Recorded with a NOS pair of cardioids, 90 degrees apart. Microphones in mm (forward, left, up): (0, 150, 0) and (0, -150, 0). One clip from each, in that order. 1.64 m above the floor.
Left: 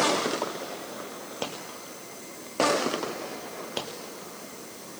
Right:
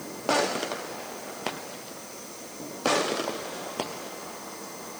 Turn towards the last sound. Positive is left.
No sound to turn to.